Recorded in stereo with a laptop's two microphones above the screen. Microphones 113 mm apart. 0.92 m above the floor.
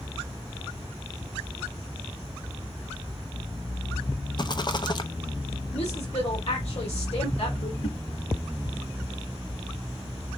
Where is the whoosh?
70° left (ahead or behind), 2.5 m.